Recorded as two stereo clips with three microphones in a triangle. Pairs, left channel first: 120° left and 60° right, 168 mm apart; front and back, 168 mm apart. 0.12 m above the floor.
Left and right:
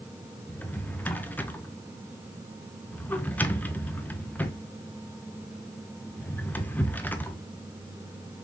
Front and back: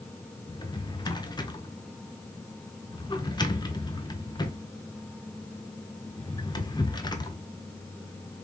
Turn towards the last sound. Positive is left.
turn(degrees=45)